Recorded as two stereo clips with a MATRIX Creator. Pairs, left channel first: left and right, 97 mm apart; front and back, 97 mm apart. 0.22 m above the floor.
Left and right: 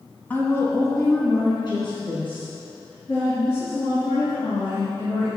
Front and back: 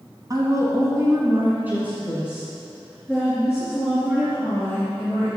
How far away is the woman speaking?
About 1.9 m.